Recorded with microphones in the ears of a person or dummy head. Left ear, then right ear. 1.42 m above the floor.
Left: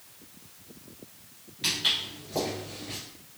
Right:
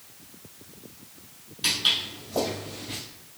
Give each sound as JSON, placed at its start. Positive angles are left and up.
{"t": 1.6, "sound": "footsteps", "side_deg": 20, "distance_m": 1.5}